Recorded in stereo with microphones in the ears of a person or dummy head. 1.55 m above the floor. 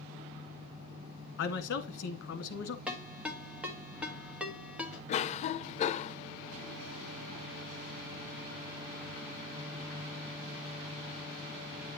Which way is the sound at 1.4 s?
60° left (ahead or behind).